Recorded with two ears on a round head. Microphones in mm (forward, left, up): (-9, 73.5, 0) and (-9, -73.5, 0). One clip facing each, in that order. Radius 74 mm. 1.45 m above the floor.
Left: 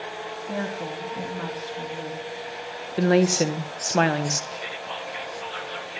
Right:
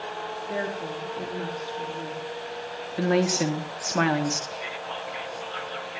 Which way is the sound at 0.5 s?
65° left (ahead or behind).